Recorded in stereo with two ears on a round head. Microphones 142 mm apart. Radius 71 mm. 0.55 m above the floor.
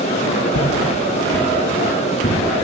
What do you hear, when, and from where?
0.5 s footsteps: 60° left (ahead or behind), 1.5 m